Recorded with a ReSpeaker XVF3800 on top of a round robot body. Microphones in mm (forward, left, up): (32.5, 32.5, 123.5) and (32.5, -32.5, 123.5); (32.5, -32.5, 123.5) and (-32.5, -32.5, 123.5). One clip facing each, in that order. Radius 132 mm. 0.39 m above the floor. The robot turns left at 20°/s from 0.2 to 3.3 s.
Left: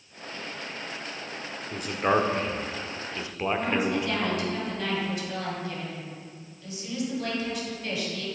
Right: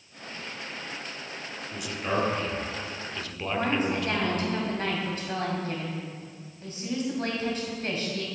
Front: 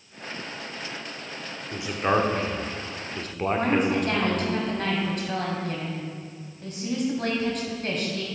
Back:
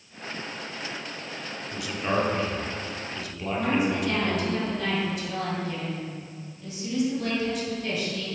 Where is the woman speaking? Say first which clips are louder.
Right 2 dB, front 1 dB; 40° right, 3 m.